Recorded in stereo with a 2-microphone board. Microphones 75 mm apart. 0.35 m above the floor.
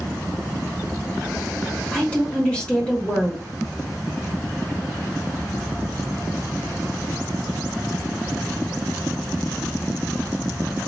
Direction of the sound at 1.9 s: 15° left (ahead or behind).